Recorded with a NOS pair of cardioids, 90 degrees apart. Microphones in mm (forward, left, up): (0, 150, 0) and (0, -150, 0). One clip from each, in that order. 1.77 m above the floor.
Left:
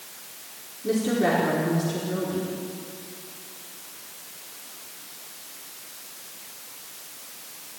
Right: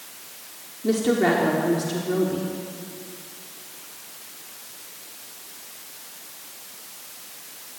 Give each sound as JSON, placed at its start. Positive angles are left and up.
{"t": 0.8, "sound": "a woman speaking", "azimuth_deg": -35, "distance_m": 4.5}